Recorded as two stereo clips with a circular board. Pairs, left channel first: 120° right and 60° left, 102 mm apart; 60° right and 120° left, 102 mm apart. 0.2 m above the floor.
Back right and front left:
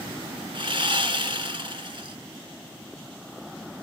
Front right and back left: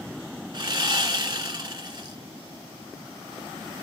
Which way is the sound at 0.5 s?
90° left.